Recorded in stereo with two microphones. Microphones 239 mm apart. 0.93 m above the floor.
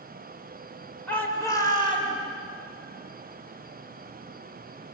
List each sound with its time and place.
1.1 s a shout: 5° left (ahead or behind), 4.5 m; by 2.1 s 25° left (ahead or behind), 5 m